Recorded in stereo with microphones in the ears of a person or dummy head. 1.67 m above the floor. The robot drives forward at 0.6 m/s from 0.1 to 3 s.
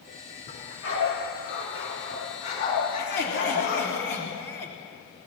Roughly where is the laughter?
Left.